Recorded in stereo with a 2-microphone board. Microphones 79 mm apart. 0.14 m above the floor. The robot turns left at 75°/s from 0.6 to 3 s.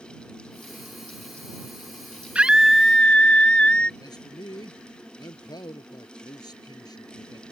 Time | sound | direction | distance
2.4 | a scream | 150° right | ?
4.0 | a man speaking | 60° left (ahead or behind) | ?